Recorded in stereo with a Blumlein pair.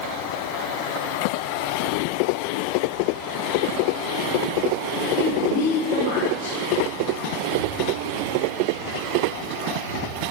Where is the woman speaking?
35° left, 5 m.